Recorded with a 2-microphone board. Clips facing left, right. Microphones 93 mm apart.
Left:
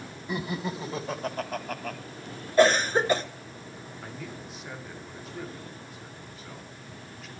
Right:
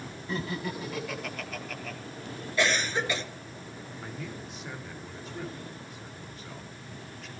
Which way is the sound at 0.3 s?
15° left (ahead or behind).